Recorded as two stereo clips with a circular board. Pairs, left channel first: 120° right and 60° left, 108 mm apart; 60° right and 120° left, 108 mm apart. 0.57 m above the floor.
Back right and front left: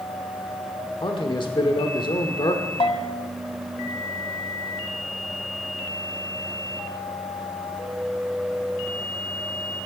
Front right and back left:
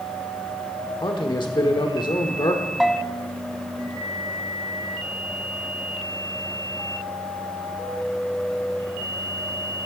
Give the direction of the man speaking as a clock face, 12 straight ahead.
3 o'clock.